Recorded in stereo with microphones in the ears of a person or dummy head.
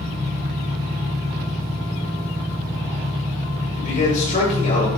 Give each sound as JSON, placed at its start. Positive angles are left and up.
{"t": 0.0, "sound": "an engine running", "side_deg": -20, "distance_m": 6.0}
{"t": 3.8, "sound": "a man speaking", "side_deg": 40, "distance_m": 7.5}